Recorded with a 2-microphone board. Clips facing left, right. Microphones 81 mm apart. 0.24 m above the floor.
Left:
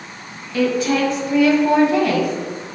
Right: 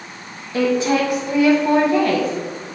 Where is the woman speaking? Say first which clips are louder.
Right 1 dB; 30° right (ahead or behind), 1.5 m; by 2.3 s 10° left (ahead or behind), 2 m.